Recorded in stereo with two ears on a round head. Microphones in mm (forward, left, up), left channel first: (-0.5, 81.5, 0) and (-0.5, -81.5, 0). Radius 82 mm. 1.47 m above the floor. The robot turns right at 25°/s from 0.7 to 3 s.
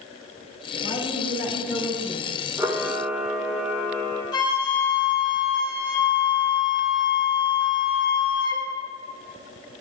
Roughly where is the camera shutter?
Centre.